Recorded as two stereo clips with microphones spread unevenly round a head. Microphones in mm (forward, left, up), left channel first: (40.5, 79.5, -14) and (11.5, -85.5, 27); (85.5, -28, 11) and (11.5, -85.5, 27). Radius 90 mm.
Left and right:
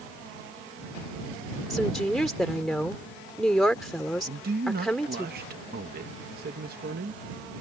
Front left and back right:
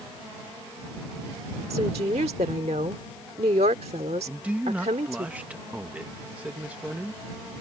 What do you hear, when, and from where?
1.7 s a woman speaking: 170° left
4.3 s a man speaking: 65° right